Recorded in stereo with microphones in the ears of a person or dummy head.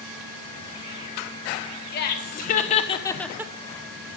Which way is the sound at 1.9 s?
55° left (ahead or behind).